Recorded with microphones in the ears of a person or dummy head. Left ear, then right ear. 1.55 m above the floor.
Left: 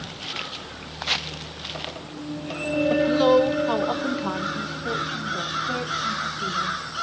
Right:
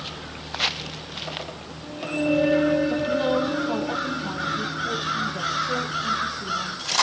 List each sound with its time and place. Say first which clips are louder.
2.9 s a woman speaking: left 5 dB; 75° left (ahead or behind), 1.1 m; by 6.8 s centre (ahead or behind), 1.9 m